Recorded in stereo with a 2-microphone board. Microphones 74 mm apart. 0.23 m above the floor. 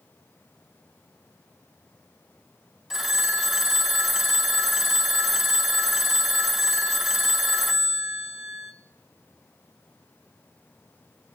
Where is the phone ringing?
5° right (ahead or behind), 1.0 m.